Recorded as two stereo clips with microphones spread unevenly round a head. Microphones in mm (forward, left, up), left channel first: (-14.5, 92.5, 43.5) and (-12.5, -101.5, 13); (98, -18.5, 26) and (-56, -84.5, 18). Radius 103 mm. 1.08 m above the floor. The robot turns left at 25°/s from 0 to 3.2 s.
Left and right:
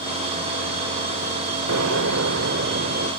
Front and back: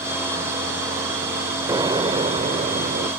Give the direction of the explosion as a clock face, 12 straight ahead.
3 o'clock.